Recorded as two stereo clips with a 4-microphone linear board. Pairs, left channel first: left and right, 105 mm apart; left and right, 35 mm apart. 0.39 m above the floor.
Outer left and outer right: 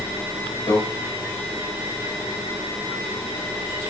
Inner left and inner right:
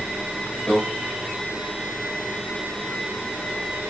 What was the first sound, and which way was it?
A microwave, 35° left (ahead or behind).